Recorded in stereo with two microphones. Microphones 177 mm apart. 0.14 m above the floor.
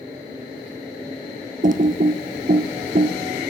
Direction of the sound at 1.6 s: 50° right (ahead or behind).